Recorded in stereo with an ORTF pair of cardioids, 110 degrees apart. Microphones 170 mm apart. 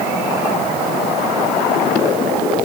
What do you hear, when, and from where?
Only background noise.